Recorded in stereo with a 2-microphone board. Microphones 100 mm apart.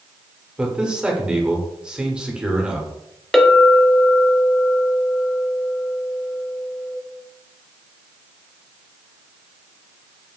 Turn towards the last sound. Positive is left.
turn(degrees=0)  # may be behind; listen again after turning